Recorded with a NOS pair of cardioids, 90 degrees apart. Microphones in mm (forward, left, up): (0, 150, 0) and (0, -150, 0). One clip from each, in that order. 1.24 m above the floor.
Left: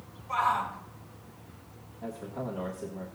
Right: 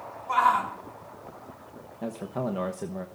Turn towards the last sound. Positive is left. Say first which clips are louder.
# right 5 dB
turn(degrees=-70)